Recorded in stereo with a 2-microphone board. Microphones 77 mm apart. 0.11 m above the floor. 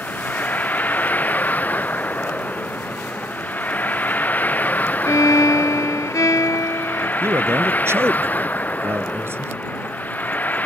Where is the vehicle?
20° left (ahead or behind).